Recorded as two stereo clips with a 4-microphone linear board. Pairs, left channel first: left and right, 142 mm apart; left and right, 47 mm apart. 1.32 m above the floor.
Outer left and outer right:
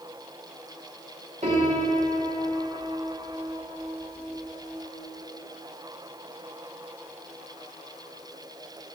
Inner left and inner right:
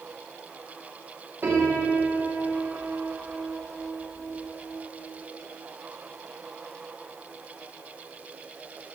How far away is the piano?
About 2.5 m.